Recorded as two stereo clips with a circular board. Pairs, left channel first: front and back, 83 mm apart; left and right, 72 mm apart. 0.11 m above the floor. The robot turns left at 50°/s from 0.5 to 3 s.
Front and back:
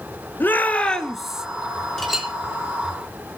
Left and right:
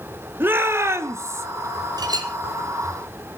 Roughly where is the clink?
Right.